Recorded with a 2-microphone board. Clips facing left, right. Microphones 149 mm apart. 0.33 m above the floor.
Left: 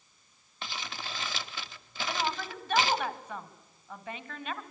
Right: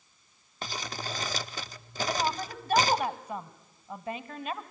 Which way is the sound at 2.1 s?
40° right (ahead or behind).